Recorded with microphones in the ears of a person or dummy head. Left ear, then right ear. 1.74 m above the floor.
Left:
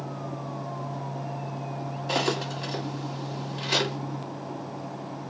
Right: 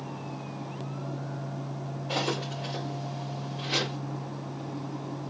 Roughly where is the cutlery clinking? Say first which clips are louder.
Left 3 dB; left.